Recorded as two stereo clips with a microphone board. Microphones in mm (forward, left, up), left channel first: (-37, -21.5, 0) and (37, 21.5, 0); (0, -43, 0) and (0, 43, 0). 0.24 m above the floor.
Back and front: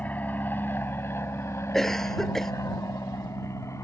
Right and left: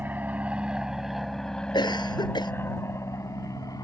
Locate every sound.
0.0 s an aircraft: 150° left; by 3.8 s 105° right
1.7 s a cough: 65° right